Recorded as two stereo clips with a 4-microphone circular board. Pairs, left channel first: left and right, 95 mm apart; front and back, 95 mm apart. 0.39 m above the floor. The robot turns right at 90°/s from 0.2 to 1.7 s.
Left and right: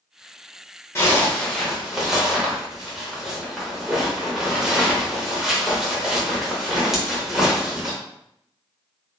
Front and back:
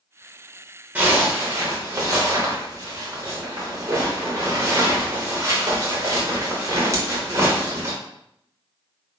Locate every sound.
0.9 s a zipper: 120° left, 0.9 m; by 8.0 s 170° right, 0.9 m